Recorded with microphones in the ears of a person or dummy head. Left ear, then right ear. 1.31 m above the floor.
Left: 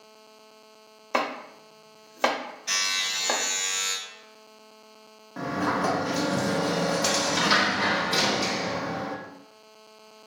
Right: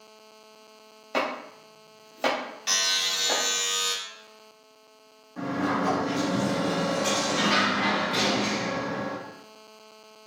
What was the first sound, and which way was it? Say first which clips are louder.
Chopping: left 1 dB; 45° left (ahead or behind).